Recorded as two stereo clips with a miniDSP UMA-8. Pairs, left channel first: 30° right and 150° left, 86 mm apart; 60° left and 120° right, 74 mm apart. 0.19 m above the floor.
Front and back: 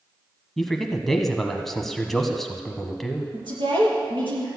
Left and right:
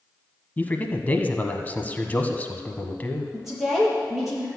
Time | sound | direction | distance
0.6 | a man speaking | 50° left | 1.0 m
3.3 | a woman speaking | 155° left | 4.5 m